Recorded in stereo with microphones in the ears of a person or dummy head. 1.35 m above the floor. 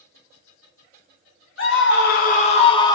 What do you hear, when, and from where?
1.6 s a scream: 55° left (ahead or behind), 0.6 m; by 3.0 s 20° left (ahead or behind), 0.7 m